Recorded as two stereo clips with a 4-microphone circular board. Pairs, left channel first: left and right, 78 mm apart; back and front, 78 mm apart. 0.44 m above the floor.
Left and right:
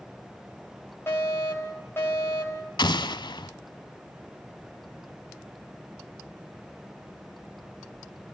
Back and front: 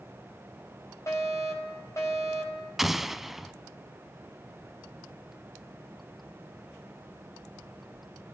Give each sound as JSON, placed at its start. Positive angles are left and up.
{"t": 1.1, "sound": "a fire alarm", "azimuth_deg": 140, "distance_m": 4.0}
{"t": 2.8, "sound": "an explosion", "azimuth_deg": 85, "distance_m": 0.6}